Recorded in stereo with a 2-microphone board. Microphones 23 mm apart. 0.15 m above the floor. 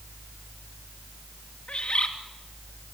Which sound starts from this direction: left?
A bird, at 1.7 s.